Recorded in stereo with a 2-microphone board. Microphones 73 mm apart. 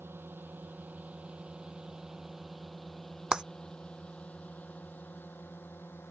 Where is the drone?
30° right (ahead or behind); by 6.1 s 30° left (ahead or behind).